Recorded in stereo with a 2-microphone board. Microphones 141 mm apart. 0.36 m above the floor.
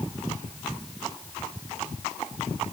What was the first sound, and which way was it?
Only background noise.